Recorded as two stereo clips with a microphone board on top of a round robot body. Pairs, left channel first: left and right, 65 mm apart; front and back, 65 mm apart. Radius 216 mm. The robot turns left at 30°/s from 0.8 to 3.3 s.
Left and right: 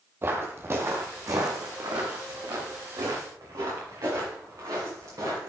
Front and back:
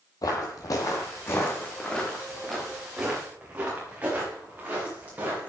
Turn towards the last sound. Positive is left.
turn(degrees=-115)